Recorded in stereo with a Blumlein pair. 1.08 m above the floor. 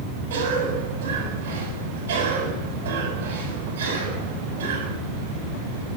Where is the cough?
60° right, 7.5 m.